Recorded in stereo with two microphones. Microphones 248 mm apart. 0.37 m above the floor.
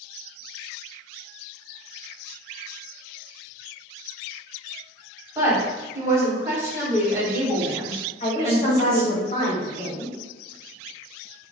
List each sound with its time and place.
5.3 s a woman speaking: 10° right (ahead or behind), 1.8 m
8.2 s a woman speaking: 25° left (ahead or behind), 1.8 m